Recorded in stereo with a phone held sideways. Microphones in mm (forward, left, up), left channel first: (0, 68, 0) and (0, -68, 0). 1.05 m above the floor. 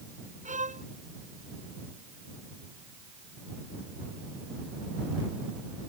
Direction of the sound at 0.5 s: 65° right (ahead or behind).